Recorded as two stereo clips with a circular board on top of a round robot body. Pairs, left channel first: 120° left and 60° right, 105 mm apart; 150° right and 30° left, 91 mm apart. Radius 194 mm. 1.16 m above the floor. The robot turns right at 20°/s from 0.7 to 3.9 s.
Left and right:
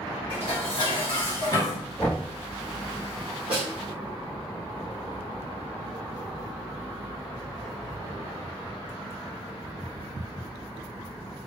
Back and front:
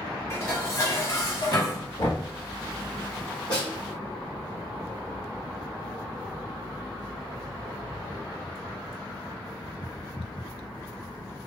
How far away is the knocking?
About 1.2 m.